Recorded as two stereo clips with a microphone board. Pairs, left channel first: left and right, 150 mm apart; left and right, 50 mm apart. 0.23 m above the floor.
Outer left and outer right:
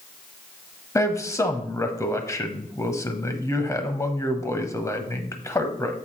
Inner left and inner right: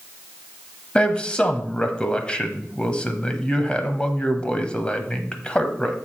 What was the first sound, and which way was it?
A man speaking, 20° left (ahead or behind).